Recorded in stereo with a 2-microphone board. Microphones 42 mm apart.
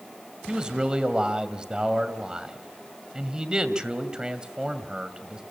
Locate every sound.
0.5 s a man speaking: 20° right (ahead or behind), 2 m